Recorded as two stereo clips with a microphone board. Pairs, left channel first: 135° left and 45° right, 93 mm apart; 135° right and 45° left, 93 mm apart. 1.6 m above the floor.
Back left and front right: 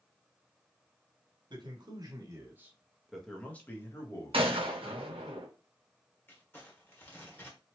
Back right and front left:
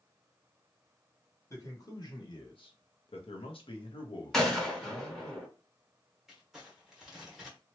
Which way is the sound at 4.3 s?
50° right.